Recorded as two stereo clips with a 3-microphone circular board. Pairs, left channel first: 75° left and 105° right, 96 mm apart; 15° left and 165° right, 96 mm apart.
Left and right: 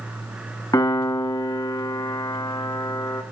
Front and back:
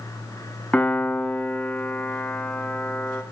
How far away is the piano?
About 1.0 m.